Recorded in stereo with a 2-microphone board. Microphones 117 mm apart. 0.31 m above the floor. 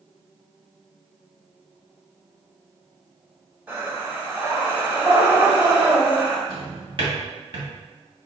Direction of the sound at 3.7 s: 15° right (ahead or behind).